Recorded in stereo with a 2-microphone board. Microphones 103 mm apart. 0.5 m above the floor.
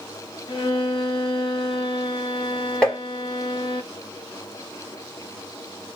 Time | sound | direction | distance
0.5 | a violin | 50° left (ahead or behind) | 0.8 m
2.8 | tapping | 10° left (ahead or behind) | 2.0 m